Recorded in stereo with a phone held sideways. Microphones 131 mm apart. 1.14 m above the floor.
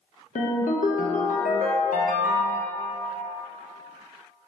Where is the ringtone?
80° left, 0.5 m.